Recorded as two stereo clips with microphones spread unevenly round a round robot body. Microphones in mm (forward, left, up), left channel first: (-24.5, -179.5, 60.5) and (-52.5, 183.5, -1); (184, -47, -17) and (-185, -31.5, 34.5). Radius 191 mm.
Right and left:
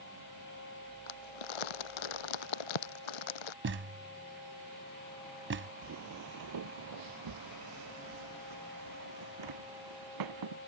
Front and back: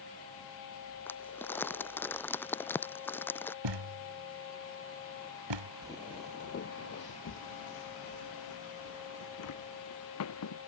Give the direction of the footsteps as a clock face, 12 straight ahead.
9 o'clock.